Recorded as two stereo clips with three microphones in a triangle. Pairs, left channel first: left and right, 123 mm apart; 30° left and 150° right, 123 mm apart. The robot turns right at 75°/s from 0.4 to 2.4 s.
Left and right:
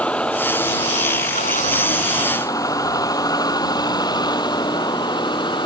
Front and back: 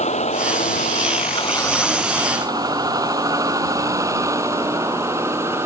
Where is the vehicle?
10° left; by 5.7 s 140° left.